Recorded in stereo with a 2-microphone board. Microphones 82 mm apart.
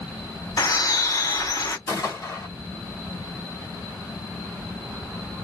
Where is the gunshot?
45° left (ahead or behind), 1.6 m.